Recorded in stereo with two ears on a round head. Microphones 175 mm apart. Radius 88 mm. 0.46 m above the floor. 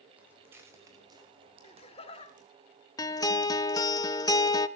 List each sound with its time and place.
0.2 s footsteps: 10° right (ahead or behind), 4 m; by 2.5 s 45° right (ahead or behind), 3 m
1.6 s laughter: 30° left (ahead or behind), 1.8 m
3.0 s a guitar: 20° left (ahead or behind), 0.5 m